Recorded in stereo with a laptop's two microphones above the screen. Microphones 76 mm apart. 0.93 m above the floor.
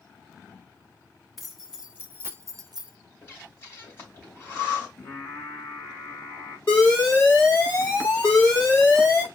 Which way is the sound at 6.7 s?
25° left (ahead or behind).